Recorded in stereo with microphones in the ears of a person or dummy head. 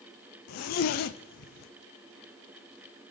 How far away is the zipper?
About 0.6 m.